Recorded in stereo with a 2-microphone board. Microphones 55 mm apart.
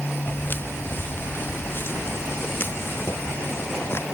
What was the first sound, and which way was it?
Footsteps, 40° left (ahead or behind).